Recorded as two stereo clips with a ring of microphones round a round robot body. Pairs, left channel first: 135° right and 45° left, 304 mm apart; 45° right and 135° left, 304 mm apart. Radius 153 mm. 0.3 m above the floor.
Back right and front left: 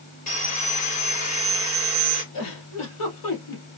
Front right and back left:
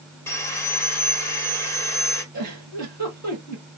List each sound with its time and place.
0.3 s sawing: 115° right, 1.2 m
2.3 s a giggle: 160° right, 2.5 m